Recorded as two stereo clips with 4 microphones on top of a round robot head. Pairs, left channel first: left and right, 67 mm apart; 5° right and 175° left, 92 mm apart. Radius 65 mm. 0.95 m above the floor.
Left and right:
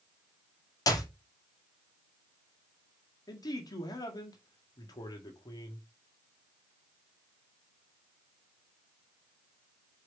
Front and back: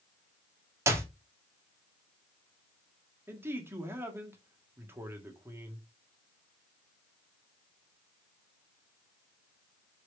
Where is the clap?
115° left, 2.5 m.